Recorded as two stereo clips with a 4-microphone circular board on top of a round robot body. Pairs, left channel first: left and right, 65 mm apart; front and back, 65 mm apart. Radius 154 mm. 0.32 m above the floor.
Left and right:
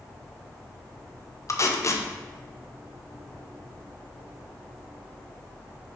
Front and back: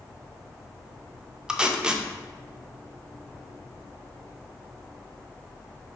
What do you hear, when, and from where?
1.5 s tape being pulled: 105° left, 0.5 m